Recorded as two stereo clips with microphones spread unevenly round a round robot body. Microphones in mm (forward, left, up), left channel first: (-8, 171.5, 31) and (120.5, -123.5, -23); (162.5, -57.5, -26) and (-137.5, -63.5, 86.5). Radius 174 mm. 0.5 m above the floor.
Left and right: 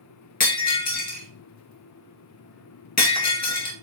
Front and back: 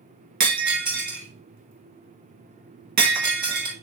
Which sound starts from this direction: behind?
Breaking glass, at 0.4 s.